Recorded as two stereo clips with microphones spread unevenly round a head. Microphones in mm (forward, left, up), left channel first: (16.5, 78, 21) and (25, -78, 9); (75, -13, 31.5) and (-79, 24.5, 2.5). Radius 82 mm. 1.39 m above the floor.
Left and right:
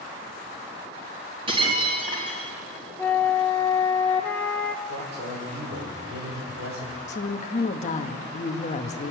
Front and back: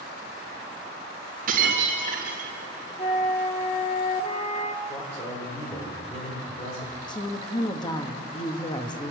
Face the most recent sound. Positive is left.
turn(degrees=50)